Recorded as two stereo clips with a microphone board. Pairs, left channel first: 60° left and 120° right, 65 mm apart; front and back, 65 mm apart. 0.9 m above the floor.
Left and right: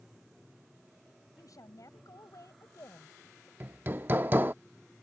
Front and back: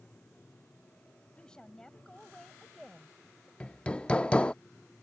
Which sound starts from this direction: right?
Hammering, at 3.6 s.